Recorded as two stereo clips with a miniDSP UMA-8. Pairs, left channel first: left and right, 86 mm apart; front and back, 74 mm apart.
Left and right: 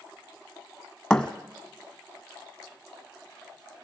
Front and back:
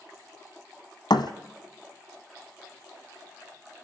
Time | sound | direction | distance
1.1 | a thud | 5° left | 1.4 m